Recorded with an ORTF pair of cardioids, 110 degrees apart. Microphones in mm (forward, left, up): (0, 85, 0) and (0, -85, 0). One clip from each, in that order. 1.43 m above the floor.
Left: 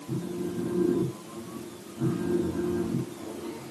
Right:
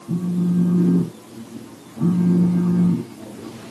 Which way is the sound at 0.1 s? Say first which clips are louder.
Right 7 dB; 40° right.